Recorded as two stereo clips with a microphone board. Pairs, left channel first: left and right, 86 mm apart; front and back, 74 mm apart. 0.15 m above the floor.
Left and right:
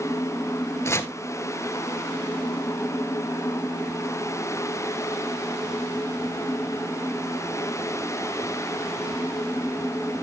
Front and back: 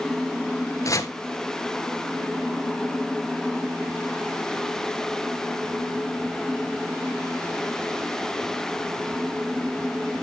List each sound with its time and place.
0.8 s chopping: 35° left, 0.9 m